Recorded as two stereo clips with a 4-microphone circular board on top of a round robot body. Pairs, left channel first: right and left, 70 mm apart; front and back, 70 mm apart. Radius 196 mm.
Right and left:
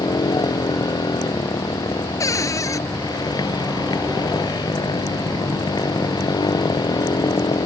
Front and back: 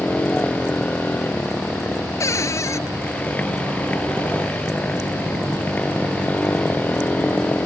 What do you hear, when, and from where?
0.0 s a motorcycle: 70° right
2.2 s a cupboard door: 45° right